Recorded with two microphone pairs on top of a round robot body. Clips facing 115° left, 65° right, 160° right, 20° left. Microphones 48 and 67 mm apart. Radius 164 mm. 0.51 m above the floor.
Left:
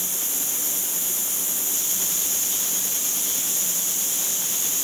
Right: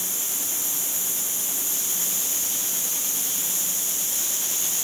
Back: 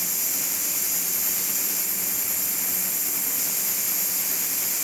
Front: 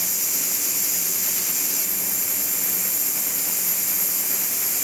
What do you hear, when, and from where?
Only background noise.